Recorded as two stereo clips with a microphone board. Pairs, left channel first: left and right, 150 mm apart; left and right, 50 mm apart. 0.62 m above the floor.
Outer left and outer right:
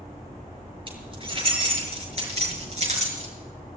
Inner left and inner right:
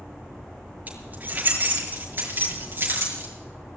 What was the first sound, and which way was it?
Keys jangling, 40° right (ahead or behind).